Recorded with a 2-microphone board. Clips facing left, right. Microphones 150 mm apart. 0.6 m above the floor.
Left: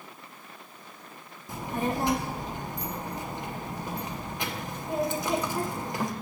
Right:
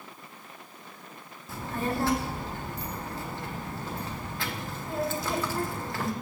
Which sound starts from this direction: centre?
A child speaking, at 1.5 s.